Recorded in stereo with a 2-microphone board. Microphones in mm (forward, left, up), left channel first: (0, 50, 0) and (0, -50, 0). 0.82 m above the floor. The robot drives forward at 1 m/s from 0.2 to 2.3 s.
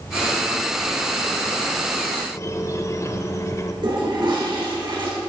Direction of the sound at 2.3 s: 30° left (ahead or behind).